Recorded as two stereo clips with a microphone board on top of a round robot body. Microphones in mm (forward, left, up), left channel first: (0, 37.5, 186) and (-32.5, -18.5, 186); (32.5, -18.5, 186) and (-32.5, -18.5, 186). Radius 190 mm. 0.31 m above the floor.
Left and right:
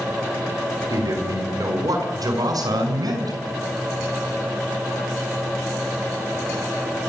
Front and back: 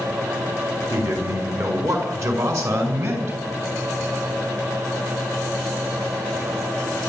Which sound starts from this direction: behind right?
A man speaking, at 0.9 s.